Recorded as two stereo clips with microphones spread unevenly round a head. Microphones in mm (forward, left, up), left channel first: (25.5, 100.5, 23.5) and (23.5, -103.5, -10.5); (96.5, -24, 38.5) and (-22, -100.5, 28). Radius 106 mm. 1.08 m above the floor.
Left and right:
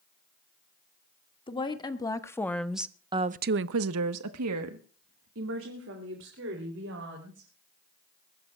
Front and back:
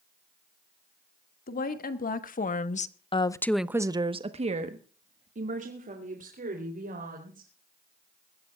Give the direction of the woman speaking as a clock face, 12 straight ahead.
11 o'clock.